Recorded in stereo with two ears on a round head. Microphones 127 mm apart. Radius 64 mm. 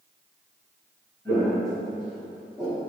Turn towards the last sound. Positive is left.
turn(degrees=-10)  # may be behind; listen again after turning